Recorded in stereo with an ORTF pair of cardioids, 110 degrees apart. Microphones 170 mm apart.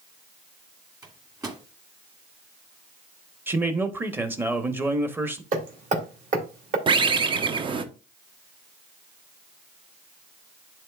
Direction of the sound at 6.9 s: 30° right.